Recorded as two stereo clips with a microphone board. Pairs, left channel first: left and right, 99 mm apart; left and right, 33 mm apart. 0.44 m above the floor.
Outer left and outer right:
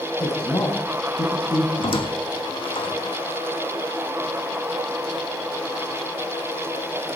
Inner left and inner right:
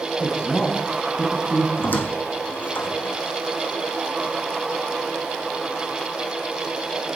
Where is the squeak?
65° left (ahead or behind), 1.4 m.